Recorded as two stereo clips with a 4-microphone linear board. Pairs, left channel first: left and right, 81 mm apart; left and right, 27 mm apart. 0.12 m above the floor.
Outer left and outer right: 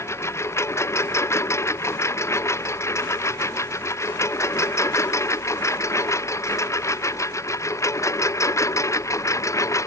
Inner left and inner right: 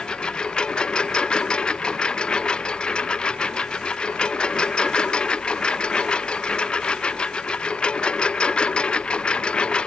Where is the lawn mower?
35° left (ahead or behind); by 9.9 s 40° left (ahead or behind).